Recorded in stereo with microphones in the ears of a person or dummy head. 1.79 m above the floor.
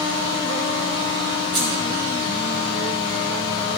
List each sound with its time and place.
1.5 s keys jangling: centre (ahead or behind), 1.8 m